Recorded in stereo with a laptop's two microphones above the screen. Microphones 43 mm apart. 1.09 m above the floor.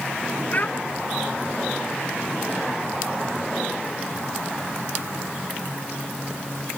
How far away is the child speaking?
About 0.9 m.